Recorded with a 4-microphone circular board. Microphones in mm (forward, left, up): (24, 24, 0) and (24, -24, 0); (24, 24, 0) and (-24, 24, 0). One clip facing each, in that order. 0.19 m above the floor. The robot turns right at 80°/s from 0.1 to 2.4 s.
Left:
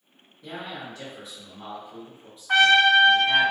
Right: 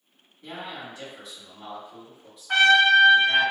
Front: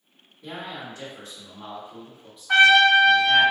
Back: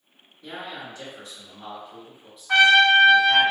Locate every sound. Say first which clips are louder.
0.4 s a man speaking: left 1 dB, even; 55° right, 1.8 m; by 3.5 s 100° left, 1.8 m
2.5 s a trumpet: even, front 1 dB; 100° left, 1.9 m